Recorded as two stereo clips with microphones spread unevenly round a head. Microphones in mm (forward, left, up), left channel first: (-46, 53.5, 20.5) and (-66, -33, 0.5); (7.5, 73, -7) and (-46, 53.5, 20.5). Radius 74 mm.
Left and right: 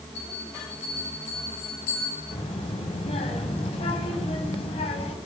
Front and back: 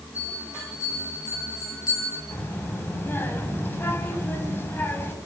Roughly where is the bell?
Ahead left.